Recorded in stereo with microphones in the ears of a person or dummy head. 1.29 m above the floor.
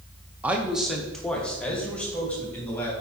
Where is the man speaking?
10° right (ahead or behind), 0.6 m; by 2.9 s 5° left (ahead or behind), 2.5 m.